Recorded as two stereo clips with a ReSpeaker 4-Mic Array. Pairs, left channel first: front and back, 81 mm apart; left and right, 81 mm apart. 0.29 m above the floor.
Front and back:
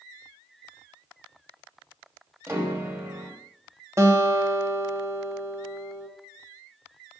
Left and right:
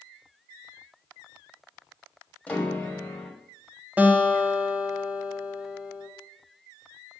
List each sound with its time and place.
2.5 s a piano: 150° left, 1.2 m
4.0 s a guitar: 150° right, 0.9 m